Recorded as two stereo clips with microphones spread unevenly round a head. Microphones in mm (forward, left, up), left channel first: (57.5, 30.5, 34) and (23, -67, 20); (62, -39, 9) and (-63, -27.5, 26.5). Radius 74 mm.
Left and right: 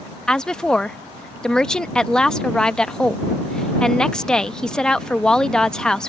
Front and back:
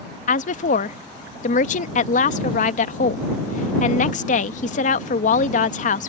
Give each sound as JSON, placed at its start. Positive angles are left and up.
{"t": 0.3, "sound": "a woman speaking", "azimuth_deg": -15}